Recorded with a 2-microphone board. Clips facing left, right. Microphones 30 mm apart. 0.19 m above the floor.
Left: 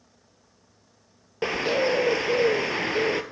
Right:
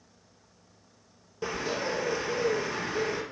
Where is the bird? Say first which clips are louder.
Left 8 dB; 55° left (ahead or behind), 0.6 m.